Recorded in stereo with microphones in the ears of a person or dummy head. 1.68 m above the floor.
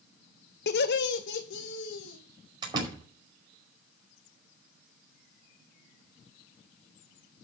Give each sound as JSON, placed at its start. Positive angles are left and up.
{"t": 0.7, "sound": "laughter", "side_deg": 55, "distance_m": 0.9}
{"t": 2.6, "sound": "a door slam", "side_deg": -25, "distance_m": 5.0}